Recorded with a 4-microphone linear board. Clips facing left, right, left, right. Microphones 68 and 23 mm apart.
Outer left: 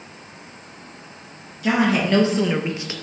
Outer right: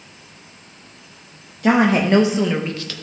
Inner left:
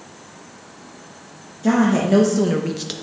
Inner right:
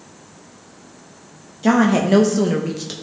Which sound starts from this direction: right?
A woman speaking, at 1.6 s.